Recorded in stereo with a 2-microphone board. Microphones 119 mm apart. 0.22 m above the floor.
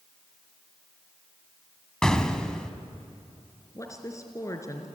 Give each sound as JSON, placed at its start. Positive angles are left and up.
{"t": 2.0, "sound": "an explosion", "side_deg": 5, "distance_m": 1.5}
{"t": 3.8, "sound": "a woman speaking", "side_deg": 25, "distance_m": 3.5}